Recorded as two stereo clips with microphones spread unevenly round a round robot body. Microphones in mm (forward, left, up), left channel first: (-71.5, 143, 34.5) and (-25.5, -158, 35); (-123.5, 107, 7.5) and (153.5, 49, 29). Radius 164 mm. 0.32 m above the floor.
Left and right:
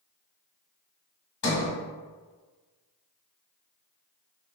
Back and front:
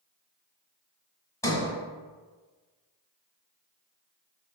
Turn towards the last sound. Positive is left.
turn(degrees=100)